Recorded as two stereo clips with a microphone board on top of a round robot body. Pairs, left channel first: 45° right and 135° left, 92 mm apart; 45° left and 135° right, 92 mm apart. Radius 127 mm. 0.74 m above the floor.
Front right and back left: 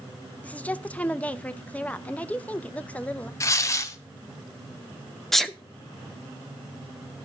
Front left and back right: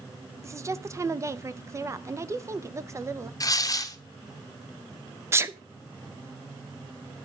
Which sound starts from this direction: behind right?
A sneeze, at 5.3 s.